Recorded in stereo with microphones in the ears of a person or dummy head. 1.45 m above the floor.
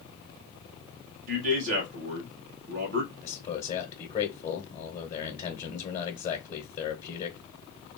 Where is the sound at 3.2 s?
30° left (ahead or behind), 1.0 m.